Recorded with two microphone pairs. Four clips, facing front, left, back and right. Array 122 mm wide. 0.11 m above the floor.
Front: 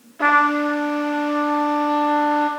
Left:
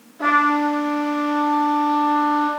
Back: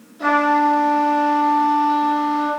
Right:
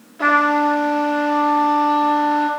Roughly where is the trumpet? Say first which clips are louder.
Right 2 dB, back 1 dB; ahead right.